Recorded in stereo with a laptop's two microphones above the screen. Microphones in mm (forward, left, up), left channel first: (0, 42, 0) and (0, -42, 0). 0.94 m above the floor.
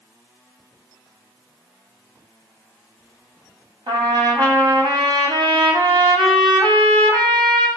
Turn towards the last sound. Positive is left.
turn(degrees=-70)  # may be behind; listen again after turning